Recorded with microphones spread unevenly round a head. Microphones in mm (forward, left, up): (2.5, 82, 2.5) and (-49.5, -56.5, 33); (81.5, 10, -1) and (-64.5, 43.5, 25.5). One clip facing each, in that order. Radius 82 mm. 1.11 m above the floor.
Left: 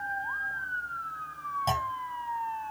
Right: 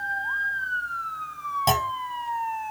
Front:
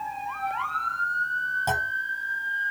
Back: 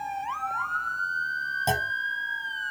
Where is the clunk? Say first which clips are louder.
Right 7 dB, back 1 dB; 125° right.